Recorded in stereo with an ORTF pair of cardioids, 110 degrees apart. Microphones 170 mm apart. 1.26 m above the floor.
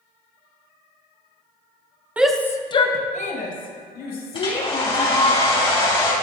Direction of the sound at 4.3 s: 35° left.